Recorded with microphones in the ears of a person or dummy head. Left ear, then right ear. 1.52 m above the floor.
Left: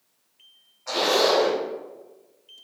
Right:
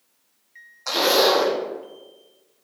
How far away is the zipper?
About 1.6 m.